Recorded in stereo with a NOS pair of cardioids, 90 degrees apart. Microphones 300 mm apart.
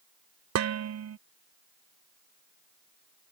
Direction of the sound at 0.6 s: 60° right.